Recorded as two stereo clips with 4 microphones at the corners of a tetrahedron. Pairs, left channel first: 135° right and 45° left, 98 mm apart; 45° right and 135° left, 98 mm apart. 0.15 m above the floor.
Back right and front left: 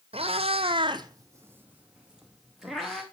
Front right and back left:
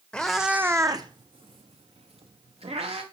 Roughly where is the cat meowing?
Ahead left.